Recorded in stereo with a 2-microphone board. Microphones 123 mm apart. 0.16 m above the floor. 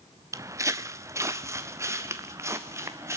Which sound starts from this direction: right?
Footsteps, at 0.3 s.